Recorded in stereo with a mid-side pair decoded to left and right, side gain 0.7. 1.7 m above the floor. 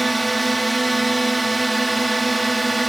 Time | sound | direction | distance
0.0 | a drone | 10° right | ?